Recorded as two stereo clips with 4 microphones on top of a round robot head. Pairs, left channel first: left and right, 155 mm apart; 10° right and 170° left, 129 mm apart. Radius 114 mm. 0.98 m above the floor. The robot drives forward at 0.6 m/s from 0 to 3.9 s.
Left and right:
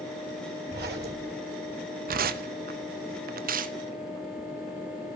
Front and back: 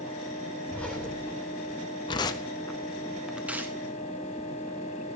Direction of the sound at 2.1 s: 65° right.